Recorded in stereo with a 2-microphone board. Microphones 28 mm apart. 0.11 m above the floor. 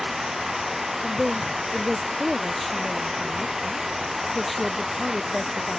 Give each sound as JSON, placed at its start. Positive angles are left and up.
{"t": 0.0, "sound": "running water", "side_deg": -10}
{"t": 1.0, "sound": "a woman speaking", "side_deg": 0}